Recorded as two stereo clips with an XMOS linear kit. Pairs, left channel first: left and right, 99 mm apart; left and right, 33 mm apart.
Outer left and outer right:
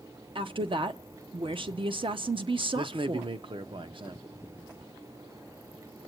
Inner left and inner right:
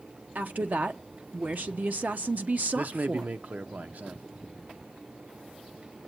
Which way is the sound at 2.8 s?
55° right (ahead or behind).